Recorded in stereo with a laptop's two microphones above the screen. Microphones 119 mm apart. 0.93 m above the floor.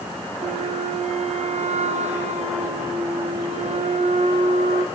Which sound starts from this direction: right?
A flute, at 0.4 s.